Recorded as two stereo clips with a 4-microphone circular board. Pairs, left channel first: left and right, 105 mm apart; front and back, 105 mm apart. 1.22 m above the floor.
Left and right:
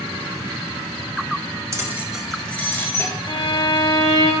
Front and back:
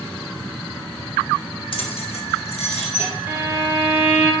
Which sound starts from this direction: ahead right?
Keys jangling, at 1.7 s.